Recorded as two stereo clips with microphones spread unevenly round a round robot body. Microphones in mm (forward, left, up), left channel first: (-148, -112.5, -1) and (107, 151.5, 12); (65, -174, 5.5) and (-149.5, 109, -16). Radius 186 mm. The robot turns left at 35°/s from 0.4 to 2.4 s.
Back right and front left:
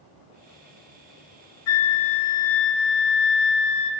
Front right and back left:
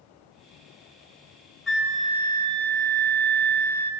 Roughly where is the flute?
Behind right.